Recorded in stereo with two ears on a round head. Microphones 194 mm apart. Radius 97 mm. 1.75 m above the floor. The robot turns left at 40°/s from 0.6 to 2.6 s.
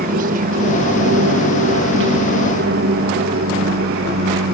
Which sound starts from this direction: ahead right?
An aircraft, at 0.0 s.